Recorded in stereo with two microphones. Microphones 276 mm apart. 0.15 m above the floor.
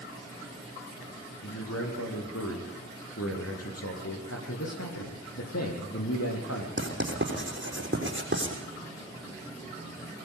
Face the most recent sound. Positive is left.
turn(degrees=-45)  # may be behind; listen again after turning